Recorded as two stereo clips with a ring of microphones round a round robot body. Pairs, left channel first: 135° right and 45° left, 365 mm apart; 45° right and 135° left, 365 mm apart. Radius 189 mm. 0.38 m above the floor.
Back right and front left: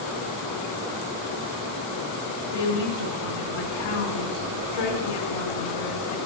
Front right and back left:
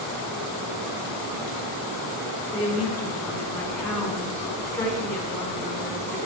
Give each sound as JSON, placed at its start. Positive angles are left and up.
{"t": 2.5, "sound": "a woman speaking", "azimuth_deg": -130, "distance_m": 4.5}